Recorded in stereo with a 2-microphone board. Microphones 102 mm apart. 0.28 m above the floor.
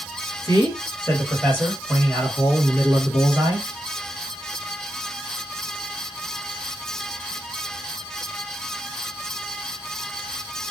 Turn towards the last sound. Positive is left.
turn(degrees=-30)  # may be behind; listen again after turning